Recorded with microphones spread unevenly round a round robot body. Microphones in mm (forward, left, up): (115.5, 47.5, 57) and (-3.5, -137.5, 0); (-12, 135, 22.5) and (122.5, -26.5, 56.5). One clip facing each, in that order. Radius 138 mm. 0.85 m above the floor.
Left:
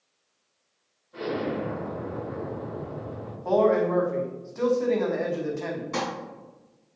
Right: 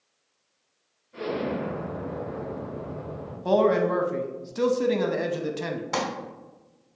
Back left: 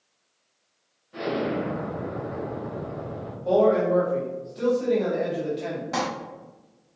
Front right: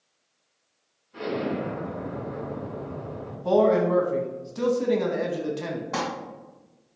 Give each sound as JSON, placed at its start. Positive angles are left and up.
{"t": 1.1, "sound": "an explosion", "azimuth_deg": 140, "distance_m": 1.5}
{"t": 3.5, "sound": "a man speaking", "azimuth_deg": -90, "distance_m": 0.7}
{"t": 5.9, "sound": "crumpling", "azimuth_deg": -155, "distance_m": 1.1}